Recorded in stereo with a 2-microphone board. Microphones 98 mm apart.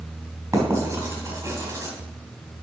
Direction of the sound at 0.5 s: 35° right (ahead or behind).